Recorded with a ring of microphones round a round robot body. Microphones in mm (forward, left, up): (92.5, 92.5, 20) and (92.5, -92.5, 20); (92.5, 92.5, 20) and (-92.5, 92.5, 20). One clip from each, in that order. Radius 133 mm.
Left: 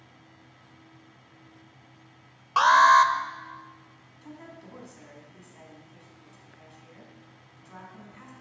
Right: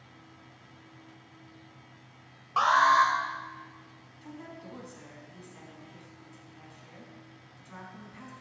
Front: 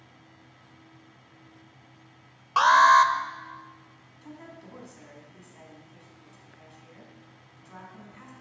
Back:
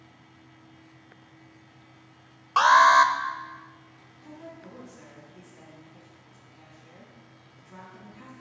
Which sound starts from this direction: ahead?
A woman speaking, at 4.2 s.